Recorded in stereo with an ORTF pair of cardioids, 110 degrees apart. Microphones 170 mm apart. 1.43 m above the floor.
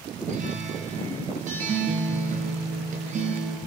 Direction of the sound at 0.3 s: 45° right.